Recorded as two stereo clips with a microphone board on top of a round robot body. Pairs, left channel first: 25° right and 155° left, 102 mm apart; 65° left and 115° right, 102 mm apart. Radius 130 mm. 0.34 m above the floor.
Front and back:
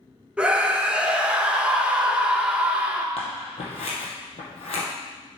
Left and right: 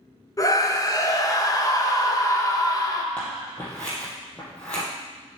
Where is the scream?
85° left, 1.2 m.